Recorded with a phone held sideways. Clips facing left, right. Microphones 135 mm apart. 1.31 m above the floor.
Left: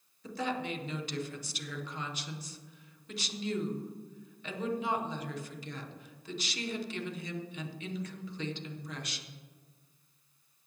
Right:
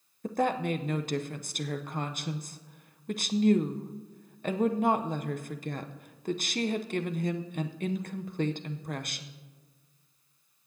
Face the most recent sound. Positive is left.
turn(degrees=-50)  # may be behind; listen again after turning